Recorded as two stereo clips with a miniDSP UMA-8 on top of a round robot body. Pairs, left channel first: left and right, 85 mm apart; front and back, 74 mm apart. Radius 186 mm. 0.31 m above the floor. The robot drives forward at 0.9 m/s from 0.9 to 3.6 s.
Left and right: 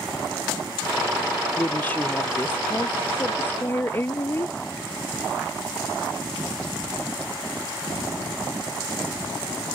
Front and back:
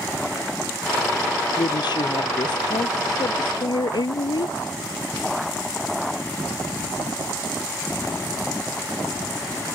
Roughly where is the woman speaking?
Ahead.